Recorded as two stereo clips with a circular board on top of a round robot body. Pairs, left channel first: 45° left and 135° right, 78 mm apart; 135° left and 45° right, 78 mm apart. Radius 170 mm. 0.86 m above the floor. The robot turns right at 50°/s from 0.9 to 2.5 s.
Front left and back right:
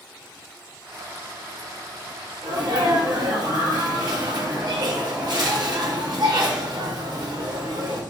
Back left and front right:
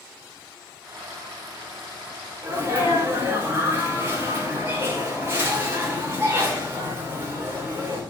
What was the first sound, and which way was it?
A sneeze, 110° right.